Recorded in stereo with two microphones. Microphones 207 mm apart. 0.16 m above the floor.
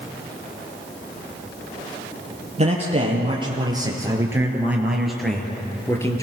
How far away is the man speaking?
About 4.5 m.